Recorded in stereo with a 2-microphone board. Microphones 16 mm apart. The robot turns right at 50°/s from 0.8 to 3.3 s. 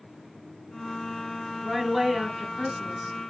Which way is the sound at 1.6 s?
5° left (ahead or behind).